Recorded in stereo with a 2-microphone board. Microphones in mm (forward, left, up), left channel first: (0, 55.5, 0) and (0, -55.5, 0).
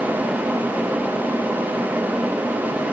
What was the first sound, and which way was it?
Only background noise.